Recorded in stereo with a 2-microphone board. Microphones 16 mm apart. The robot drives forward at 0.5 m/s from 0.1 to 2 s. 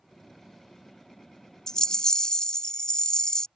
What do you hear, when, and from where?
1.7 s a rattle: 40° left (ahead or behind)